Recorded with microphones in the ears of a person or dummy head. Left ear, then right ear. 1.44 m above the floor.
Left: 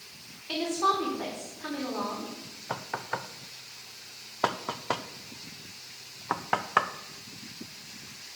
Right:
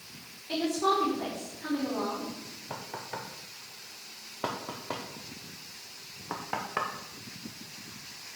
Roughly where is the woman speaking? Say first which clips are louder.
Left 1 dB; left.